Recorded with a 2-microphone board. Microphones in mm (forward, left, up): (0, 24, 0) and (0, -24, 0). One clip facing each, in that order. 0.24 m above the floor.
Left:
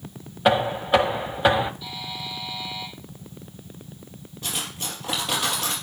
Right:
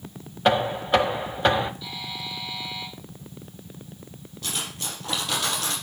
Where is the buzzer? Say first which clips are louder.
Left 1 dB; 10° left (ahead or behind), 5.5 m.